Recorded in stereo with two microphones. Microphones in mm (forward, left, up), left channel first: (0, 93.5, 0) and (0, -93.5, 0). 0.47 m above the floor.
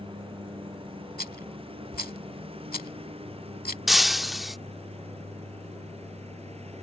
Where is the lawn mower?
30° right (ahead or behind); by 6.8 s 35° right (ahead or behind).